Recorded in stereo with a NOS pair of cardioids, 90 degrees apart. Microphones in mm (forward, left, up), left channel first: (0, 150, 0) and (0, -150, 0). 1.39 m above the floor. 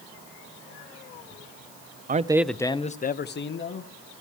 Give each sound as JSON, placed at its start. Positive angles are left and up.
{"t": 2.1, "sound": "a man speaking", "azimuth_deg": -30, "distance_m": 0.7}